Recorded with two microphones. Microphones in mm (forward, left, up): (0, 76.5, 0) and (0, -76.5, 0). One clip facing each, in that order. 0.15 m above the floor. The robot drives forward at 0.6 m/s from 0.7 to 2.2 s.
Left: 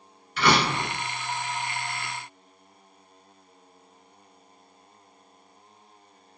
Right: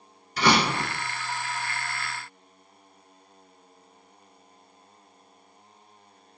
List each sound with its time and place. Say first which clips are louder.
0.4 s a door slam: even; 40° right (ahead or behind), 1.6 m